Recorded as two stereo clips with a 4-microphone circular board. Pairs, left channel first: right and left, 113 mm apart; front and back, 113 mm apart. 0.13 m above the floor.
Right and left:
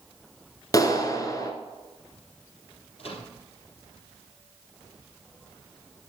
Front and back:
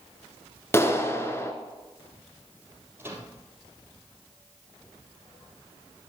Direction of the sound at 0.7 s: 55° right.